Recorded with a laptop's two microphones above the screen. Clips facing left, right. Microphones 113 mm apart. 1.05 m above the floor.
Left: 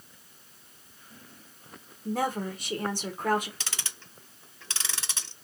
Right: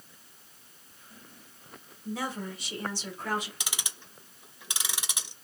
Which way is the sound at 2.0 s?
45° left (ahead or behind).